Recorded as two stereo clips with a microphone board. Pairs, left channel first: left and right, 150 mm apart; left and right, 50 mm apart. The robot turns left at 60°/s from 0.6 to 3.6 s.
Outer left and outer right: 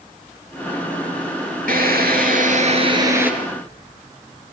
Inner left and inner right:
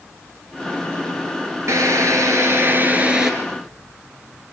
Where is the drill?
75° right, 3.5 m; by 3.3 s 170° right, 3.5 m.